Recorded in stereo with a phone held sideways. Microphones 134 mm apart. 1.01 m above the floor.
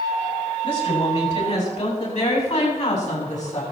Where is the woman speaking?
50° left (ahead or behind), 7 m; by 3.6 s 60° left (ahead or behind), 8.5 m.